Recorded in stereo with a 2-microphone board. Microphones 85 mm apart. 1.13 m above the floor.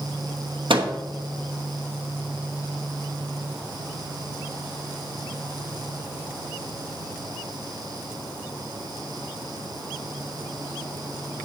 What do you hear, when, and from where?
0.7 s a microwave: 85° right, 1.2 m